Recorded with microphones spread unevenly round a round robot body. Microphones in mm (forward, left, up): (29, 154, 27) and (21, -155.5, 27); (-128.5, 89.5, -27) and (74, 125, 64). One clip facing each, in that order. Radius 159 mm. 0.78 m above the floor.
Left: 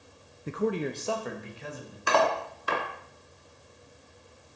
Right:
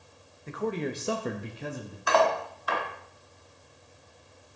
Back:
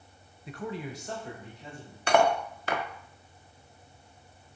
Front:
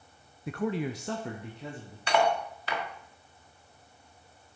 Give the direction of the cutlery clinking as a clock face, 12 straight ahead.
7 o'clock.